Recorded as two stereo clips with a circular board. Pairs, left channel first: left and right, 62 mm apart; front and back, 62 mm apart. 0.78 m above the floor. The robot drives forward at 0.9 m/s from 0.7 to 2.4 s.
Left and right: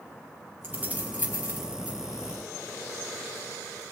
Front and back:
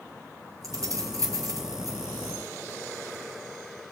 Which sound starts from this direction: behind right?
Keys jangling, at 0.6 s.